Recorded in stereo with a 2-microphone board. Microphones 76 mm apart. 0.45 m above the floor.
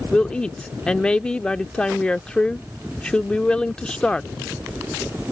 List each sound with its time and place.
0.1 s a woman speaking: 10° left (ahead or behind)